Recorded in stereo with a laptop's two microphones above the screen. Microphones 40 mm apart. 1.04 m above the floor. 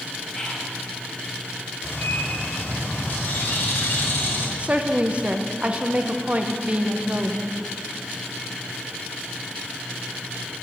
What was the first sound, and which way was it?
Whispering, 20° left (ahead or behind).